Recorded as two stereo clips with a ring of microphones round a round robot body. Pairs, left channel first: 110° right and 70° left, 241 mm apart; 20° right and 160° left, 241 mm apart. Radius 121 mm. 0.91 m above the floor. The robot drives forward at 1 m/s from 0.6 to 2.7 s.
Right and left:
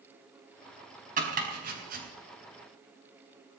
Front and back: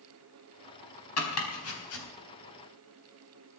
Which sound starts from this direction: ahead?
Chopping, at 1.2 s.